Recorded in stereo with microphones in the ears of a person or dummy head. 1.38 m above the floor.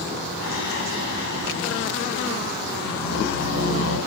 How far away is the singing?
About 9 m.